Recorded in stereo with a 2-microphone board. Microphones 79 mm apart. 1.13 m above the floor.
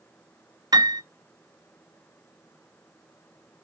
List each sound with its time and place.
0.7 s a piano: 60° right (ahead or behind), 0.8 m